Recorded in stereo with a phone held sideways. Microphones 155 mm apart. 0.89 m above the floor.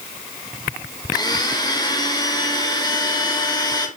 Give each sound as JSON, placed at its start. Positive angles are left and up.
{"t": 1.1, "sound": "a blender", "side_deg": 25, "distance_m": 0.7}